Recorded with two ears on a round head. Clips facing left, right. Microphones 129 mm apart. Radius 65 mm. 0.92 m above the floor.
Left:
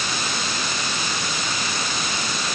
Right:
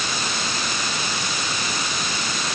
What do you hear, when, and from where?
Only background noise.